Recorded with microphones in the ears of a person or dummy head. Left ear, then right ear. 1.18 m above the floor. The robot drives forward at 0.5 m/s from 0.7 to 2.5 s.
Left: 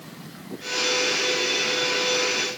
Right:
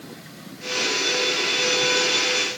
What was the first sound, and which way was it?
Only background noise.